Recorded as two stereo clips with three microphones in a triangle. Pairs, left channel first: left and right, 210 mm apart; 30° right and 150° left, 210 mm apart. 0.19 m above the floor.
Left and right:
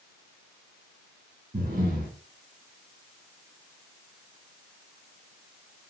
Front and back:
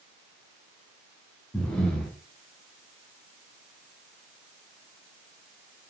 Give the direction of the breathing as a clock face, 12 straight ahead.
4 o'clock.